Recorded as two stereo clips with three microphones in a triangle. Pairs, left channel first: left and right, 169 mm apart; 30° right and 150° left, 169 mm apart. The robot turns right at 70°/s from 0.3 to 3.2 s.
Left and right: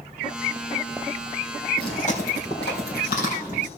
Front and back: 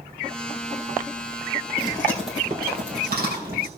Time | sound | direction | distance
1.8 | chewing | 25° left | 4 m